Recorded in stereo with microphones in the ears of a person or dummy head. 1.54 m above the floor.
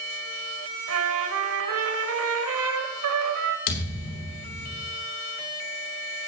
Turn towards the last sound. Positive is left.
turn(degrees=65)  # may be behind; listen again after turning